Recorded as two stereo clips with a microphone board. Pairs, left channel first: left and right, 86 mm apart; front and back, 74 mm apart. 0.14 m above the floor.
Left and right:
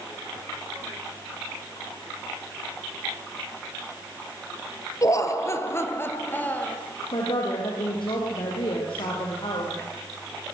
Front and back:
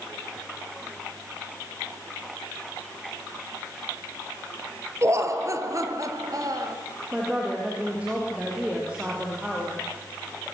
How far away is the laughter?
About 2.5 m.